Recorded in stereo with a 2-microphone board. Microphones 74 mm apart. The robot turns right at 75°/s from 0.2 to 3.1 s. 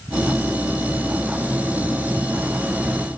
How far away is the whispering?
I don't hear whispering.